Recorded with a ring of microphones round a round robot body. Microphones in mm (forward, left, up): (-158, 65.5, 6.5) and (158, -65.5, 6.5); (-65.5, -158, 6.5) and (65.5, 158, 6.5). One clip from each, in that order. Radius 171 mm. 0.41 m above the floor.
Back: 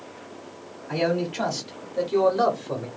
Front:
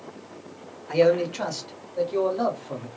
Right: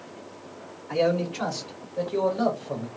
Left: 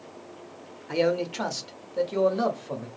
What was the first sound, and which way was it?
A man speaking, 35° left.